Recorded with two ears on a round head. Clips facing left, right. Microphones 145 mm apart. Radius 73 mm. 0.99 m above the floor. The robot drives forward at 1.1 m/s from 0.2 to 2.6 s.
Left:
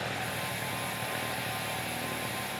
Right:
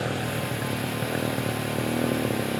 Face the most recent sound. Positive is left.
turn(degrees=-70)  # may be behind; listen again after turning